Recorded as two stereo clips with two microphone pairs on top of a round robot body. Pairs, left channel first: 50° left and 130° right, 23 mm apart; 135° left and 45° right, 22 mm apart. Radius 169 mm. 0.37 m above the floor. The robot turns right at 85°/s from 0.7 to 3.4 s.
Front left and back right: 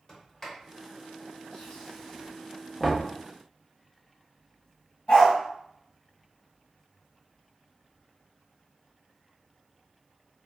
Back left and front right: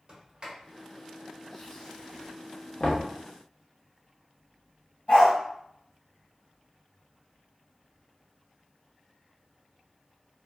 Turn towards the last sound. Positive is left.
turn(degrees=100)